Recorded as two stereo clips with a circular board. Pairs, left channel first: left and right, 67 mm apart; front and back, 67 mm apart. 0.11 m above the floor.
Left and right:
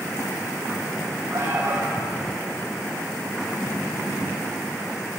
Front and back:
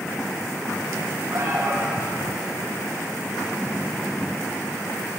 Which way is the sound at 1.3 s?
140° right.